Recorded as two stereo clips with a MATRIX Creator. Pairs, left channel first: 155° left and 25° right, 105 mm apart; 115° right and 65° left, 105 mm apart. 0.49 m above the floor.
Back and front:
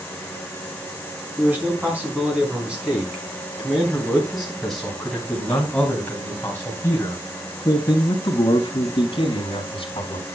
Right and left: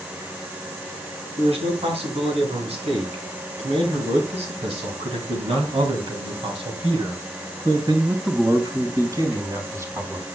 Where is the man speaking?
50° left, 5 m; by 10.2 s 130° left, 3 m.